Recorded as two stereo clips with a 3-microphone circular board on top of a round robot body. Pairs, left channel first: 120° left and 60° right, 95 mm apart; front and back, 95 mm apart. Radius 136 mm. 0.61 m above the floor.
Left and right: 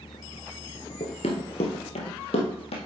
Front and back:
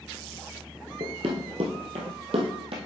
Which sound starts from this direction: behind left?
Running footsteps, at 1.0 s.